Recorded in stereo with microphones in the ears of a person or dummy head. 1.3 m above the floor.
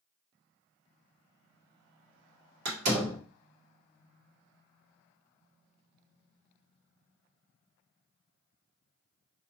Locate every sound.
2.6 s a door slam: 70° right (ahead or behind), 1.8 m